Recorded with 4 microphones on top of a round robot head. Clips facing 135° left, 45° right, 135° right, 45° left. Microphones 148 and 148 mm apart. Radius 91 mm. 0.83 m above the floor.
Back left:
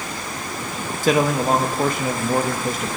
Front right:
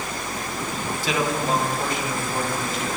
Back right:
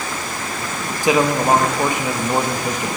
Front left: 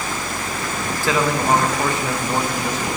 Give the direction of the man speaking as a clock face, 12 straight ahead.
7 o'clock.